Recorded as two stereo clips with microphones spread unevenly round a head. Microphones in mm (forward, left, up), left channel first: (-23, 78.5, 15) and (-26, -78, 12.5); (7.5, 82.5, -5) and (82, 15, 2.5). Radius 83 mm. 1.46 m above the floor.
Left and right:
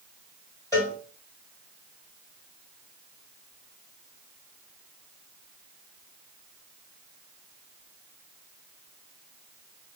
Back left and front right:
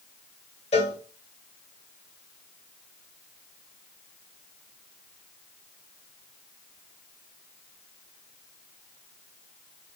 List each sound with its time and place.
0.7 s a cowbell: 160° left, 2.5 m